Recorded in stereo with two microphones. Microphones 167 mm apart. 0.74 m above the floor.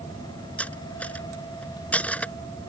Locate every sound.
0.6 s cutlery clinking: 10° left (ahead or behind)